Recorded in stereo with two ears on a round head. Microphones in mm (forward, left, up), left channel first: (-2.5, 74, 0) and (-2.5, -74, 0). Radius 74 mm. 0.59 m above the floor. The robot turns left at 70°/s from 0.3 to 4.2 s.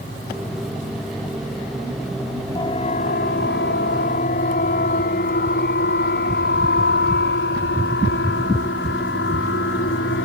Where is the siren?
25° left (ahead or behind); by 10.2 s 80° left.